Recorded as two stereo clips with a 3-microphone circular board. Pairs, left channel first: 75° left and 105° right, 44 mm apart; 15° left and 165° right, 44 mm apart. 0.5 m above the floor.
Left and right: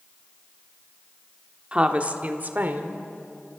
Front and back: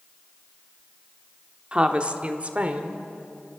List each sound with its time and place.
1.7 s a woman speaking: 135° right, 1.2 m; by 3.0 s 120° right, 1.9 m